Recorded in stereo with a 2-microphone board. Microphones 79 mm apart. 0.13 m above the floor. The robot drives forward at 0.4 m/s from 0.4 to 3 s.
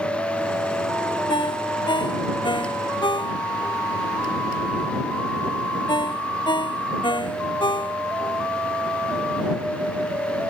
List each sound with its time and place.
1.3 s a ringtone: 85° left; by 8.4 s 75° left (ahead or behind)